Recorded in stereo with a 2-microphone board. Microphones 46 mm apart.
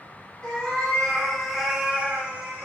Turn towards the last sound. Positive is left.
turn(degrees=-25)  # may be behind; listen again after turning